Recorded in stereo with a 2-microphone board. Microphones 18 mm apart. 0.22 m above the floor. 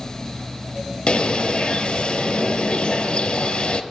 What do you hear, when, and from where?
1.1 s a bird: 70° left (ahead or behind), 1.3 m